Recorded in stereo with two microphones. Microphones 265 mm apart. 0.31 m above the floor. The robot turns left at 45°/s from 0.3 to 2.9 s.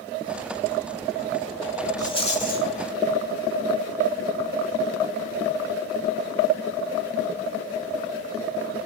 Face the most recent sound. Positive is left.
turn(degrees=120)